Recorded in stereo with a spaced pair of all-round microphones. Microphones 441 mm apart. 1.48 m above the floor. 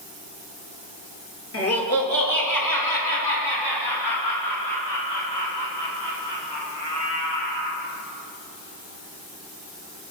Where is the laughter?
30° left (ahead or behind), 3 m; by 7.8 s 75° left (ahead or behind), 8.5 m.